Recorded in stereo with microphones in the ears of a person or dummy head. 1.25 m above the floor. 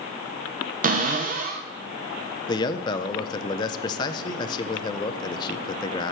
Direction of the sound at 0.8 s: 45° right (ahead or behind).